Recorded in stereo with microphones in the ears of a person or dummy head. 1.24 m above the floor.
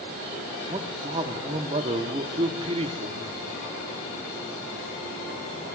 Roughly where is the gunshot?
I don't hear a gunshot.